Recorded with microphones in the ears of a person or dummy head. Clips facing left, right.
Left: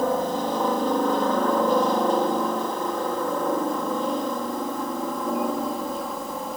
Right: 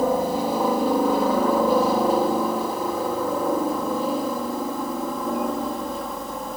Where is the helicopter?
5° right (ahead or behind); by 6.6 s 5° left (ahead or behind).